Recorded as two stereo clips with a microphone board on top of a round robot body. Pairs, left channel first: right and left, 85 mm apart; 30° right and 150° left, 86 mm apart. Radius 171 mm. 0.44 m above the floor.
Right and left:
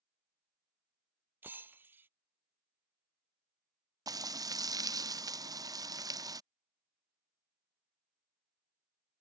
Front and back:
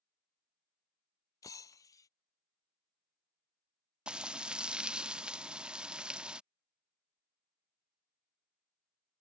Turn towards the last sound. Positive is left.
turn(degrees=75)